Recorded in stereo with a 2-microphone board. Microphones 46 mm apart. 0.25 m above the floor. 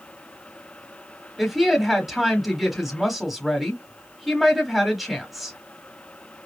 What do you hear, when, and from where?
1.4 s a woman speaking: centre (ahead or behind), 1.2 m